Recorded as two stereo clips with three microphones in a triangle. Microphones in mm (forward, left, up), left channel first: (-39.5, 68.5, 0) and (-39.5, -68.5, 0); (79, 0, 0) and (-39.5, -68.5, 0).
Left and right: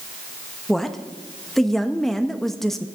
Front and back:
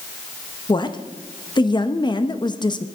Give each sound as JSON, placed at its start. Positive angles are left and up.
{"t": 0.7, "sound": "a woman speaking", "azimuth_deg": 5, "distance_m": 0.7}